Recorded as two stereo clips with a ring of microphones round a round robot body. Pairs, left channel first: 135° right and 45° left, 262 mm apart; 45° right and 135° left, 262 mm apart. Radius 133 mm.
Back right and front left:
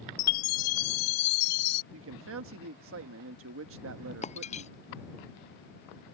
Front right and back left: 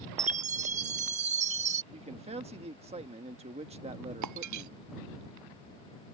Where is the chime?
160° right.